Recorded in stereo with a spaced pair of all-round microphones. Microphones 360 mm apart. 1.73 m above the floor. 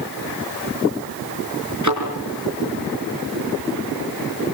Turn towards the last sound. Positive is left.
turn(degrees=-50)  # may be behind; listen again after turning